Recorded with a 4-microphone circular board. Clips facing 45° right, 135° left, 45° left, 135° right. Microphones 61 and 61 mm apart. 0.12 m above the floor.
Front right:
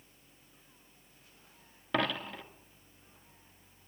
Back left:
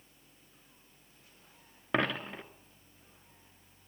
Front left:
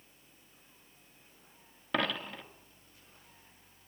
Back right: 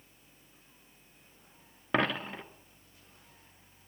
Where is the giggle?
No giggle in this recording.